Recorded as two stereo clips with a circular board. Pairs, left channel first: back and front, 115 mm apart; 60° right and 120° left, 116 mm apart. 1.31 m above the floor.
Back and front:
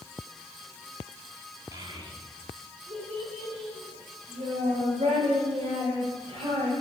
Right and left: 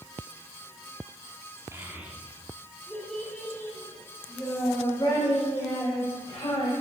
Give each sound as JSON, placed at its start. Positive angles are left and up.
{"t": 1.7, "sound": "a child speaking", "azimuth_deg": 55, "distance_m": 1.7}